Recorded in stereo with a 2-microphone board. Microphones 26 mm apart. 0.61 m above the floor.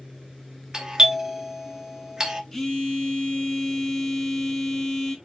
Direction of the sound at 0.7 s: 20° right (ahead or behind).